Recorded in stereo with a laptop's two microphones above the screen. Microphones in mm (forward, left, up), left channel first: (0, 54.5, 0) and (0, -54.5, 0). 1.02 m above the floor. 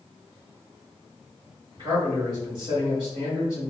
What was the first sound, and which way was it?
A man speaking, 45° right (ahead or behind).